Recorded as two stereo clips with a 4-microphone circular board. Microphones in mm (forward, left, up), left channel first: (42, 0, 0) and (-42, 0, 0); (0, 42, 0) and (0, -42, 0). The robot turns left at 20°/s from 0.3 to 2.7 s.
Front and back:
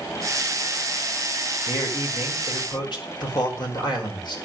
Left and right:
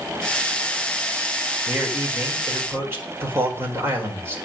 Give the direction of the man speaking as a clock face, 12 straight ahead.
12 o'clock.